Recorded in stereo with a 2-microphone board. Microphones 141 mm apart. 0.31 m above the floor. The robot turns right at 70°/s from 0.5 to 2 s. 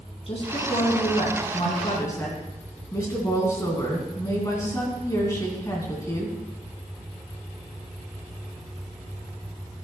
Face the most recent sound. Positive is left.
turn(degrees=155)